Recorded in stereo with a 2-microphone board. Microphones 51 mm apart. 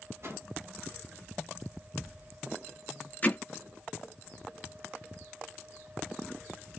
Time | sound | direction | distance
0.2 | a whoosh | 55° right (ahead or behind) | 1.8 m
3.2 | hammering | 30° left (ahead or behind) | 1.4 m